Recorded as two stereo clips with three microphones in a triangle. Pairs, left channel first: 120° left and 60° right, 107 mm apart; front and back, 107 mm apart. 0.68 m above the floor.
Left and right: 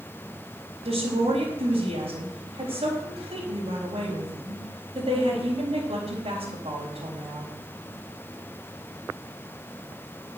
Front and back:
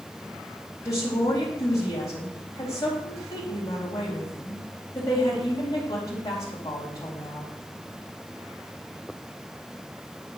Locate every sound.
0.8 s a woman speaking: 55° right, 4 m